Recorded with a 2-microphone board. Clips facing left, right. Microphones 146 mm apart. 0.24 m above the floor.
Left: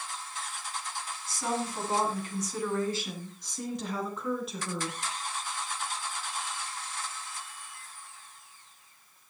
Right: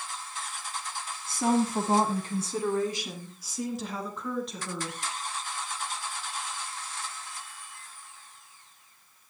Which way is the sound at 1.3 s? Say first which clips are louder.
Right 8 dB; 55° right (ahead or behind).